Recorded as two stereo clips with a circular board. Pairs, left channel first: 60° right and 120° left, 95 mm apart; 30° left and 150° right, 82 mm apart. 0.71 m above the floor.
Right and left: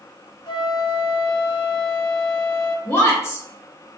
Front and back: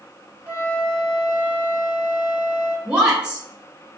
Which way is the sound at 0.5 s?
75° right.